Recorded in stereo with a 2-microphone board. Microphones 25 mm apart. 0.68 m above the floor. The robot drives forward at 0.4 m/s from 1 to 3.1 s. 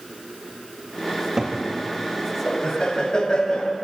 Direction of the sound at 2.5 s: 30° left (ahead or behind).